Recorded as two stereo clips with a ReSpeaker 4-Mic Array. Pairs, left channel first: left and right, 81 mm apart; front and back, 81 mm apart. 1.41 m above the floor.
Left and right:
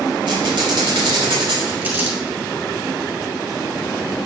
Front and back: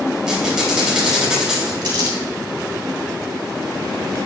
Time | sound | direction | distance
0.3 | a squeak | 95° right | 3.5 m
1.8 | crumpling | 155° right | 2.5 m